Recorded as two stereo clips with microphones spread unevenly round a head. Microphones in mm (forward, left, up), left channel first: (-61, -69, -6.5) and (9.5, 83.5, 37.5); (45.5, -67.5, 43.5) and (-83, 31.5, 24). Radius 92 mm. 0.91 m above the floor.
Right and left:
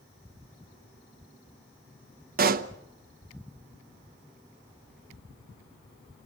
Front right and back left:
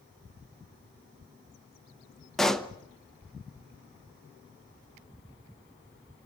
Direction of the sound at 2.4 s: 55° left.